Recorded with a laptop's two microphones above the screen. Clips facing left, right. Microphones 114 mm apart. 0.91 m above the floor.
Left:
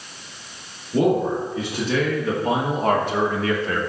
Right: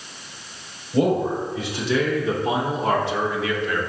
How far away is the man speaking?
About 2 m.